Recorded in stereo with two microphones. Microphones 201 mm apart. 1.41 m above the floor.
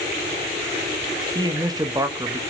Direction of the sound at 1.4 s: 20° right (ahead or behind).